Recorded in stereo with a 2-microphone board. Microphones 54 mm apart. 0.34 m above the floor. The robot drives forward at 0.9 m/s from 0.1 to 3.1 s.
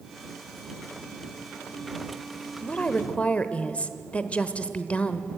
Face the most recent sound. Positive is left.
turn(degrees=25)  # may be behind; listen again after turning